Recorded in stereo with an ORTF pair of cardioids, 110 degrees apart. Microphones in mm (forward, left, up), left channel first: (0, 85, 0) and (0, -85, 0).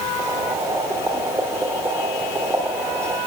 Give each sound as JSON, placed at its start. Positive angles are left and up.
{"t": 0.2, "sound": "boiling", "azimuth_deg": -15, "distance_m": 3.0}